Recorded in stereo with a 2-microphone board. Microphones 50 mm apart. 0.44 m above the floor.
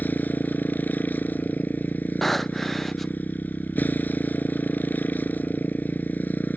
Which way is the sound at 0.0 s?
40° left (ahead or behind).